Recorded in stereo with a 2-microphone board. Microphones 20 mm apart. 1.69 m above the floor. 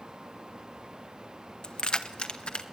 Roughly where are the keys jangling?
Left.